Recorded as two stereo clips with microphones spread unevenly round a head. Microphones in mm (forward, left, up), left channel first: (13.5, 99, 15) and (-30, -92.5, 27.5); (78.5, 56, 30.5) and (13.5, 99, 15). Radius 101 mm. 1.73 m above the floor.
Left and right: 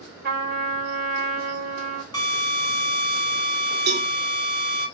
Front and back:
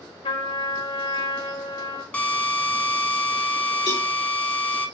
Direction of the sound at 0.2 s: 60° right.